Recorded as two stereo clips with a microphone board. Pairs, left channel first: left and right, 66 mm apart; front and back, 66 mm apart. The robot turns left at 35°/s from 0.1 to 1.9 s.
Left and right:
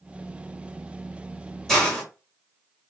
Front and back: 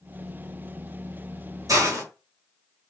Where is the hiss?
170° left, 1.5 m; by 2.0 s 165° left, 1.5 m.